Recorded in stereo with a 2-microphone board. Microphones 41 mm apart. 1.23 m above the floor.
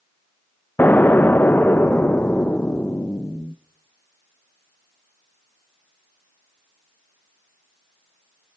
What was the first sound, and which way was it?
An explosion, 55° left (ahead or behind).